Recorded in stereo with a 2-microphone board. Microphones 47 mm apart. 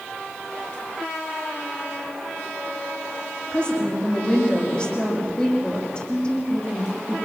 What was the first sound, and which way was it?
A woman speaking, 20° left (ahead or behind).